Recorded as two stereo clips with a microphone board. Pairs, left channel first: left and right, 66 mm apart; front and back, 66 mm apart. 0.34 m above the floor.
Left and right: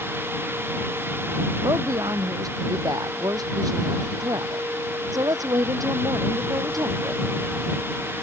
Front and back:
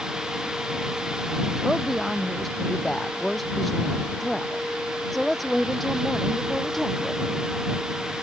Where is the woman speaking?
85° right.